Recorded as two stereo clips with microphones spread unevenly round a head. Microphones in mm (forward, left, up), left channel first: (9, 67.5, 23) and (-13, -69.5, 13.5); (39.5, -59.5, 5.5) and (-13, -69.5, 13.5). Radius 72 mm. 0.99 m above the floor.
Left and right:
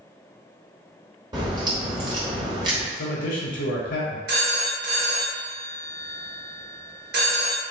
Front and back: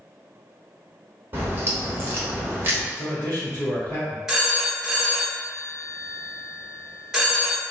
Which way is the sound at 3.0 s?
100° left.